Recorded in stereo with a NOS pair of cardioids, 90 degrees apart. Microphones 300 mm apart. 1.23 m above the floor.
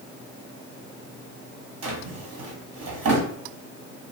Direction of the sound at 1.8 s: 55° right.